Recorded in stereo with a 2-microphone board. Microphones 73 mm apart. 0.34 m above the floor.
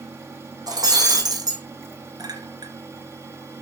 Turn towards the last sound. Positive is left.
turn(degrees=-75)  # may be behind; listen again after turning